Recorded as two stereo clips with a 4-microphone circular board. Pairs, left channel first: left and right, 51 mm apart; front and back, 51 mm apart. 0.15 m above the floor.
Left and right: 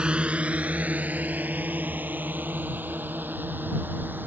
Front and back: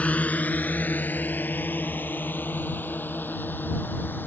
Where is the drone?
35° right; by 4.3 s 45° right.